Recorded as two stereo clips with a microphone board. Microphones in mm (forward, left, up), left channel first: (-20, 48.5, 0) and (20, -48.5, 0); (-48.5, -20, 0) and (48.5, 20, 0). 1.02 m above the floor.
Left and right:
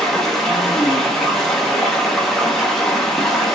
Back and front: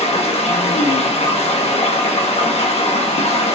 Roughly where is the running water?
Behind.